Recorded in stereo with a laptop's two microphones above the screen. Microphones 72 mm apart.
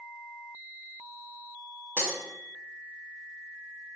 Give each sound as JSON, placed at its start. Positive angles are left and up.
{"t": 2.0, "sound": "breaking glass", "side_deg": 20, "distance_m": 0.6}